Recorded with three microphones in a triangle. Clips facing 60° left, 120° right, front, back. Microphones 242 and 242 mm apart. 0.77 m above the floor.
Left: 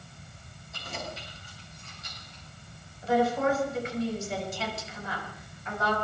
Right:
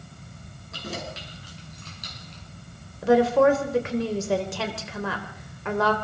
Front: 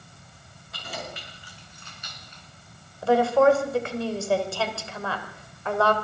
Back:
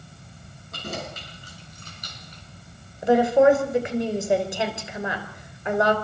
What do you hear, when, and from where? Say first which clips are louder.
0.7 s keys jangling: right 5 dB, back 4 dB; 135° right, 7 m; by 2.4 s 125° right, 6 m
3.0 s a woman speaking: right 8 dB, back 2 dB; 110° right, 3.5 m